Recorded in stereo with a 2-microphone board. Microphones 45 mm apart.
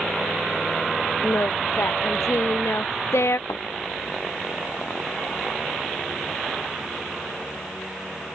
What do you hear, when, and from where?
1.2 s singing: 80° left
3.5 s a thud: 85° left